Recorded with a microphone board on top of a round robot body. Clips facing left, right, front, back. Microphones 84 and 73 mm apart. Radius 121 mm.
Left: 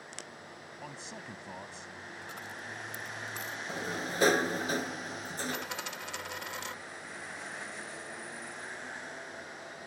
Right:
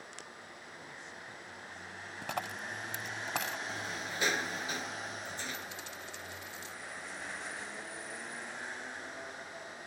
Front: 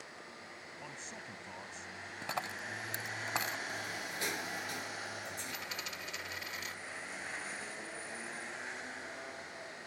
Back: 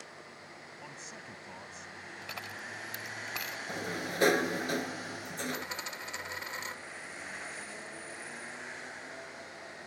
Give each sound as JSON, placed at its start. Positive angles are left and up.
{"t": 0.8, "sound": "a man speaking", "azimuth_deg": 95}
{"t": 2.2, "sound": "a dropped coin", "azimuth_deg": -60}
{"t": 3.7, "sound": "a sliding door", "azimuth_deg": 140}
{"t": 5.5, "sound": "a dropped coin", "azimuth_deg": 120}